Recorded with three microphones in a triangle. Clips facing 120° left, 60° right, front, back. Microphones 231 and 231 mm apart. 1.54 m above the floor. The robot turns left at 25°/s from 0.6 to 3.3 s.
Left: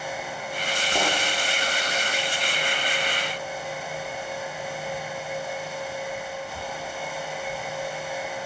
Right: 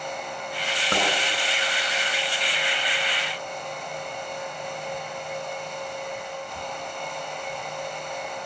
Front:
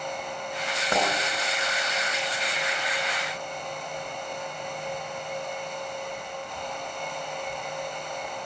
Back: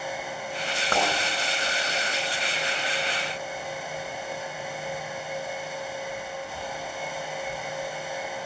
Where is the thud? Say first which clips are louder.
Right 1 dB, front 1 dB; 80° right, 5 m.